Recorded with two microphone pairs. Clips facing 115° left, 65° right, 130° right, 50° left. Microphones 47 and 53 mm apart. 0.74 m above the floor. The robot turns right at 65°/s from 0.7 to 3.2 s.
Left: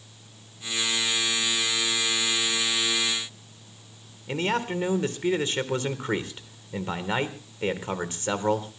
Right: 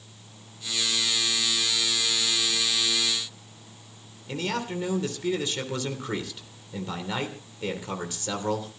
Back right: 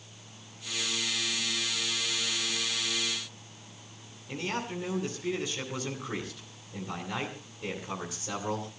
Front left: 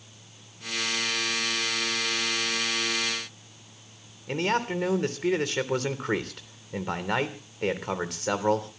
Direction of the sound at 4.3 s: 65° left.